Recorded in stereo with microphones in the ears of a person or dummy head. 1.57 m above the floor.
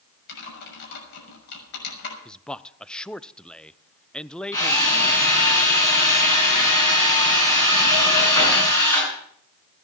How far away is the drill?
About 8 m.